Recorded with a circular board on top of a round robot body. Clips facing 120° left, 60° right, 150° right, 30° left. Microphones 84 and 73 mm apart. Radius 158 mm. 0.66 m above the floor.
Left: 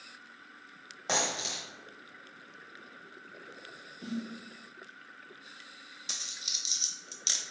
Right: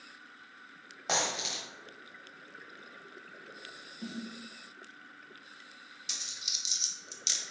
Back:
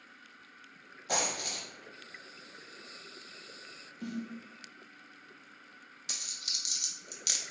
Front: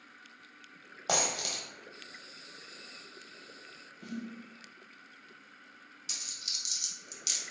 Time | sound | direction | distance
1.1 | a dropped coin | 30° left | 0.8 m
4.0 | a snare drum | 130° right | 0.9 m
6.1 | a dropped coin | 170° left | 0.5 m